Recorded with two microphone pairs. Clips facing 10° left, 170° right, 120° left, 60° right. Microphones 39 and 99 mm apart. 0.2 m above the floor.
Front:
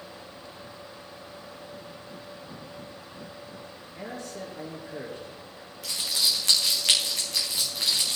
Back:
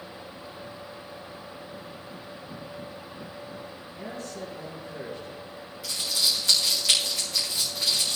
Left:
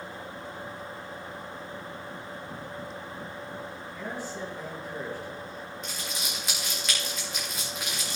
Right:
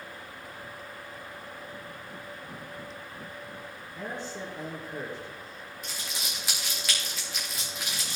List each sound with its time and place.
4.0 s a man speaking: 5° left, 3.5 m
5.8 s crumpling: 30° left, 4.5 m